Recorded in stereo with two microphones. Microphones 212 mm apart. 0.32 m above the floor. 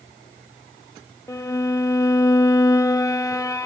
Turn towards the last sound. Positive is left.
turn(degrees=15)  # may be behind; listen again after turning